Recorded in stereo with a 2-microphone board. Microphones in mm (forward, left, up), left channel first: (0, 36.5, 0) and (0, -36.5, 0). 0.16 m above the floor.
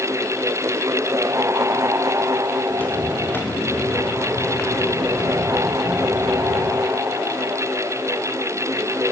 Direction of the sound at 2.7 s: 20° left (ahead or behind).